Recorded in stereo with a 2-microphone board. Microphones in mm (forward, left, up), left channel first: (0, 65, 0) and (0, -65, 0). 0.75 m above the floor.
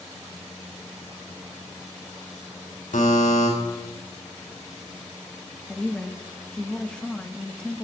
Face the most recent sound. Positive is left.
turn(degrees=5)  # may be behind; listen again after turning